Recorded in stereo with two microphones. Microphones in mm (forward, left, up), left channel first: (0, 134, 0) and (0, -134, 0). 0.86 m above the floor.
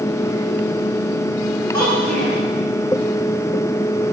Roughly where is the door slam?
No door slam in this recording.